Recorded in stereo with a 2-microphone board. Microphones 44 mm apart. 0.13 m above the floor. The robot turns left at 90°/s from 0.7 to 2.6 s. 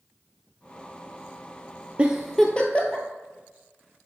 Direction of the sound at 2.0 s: 25° right (ahead or behind).